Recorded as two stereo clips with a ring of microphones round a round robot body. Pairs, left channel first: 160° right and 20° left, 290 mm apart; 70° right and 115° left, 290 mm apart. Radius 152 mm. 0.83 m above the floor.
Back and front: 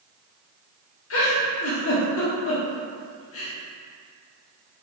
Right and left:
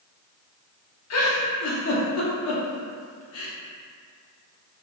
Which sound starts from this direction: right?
A giggle, at 1.1 s.